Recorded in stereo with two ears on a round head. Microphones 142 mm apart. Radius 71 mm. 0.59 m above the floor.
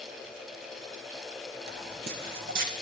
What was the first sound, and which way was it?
Footsteps, 75° right (ahead or behind).